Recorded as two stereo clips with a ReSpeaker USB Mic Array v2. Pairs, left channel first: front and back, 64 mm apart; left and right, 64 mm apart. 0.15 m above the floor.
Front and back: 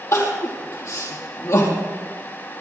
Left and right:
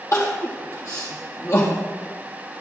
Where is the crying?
45° left, 4 m.